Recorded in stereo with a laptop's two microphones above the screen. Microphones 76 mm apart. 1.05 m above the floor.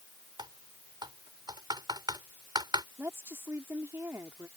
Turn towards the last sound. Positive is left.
turn(degrees=-35)  # may be behind; listen again after turning